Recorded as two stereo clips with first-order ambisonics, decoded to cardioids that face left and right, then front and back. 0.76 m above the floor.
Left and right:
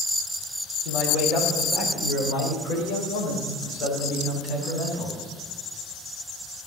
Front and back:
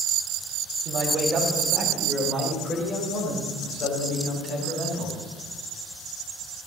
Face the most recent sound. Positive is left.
turn(degrees=50)